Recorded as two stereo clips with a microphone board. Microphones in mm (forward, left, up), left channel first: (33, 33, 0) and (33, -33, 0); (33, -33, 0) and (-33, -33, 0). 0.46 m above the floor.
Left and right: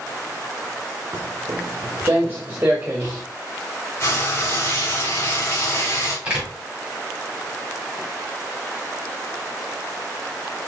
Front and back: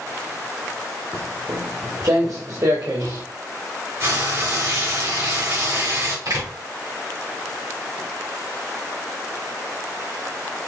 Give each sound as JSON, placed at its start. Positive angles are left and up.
{"t": 1.1, "sound": "footsteps", "azimuth_deg": -135, "distance_m": 1.0}
{"t": 4.0, "sound": "frying", "azimuth_deg": 140, "distance_m": 2.0}
{"t": 6.2, "sound": "a door slam", "azimuth_deg": -170, "distance_m": 2.0}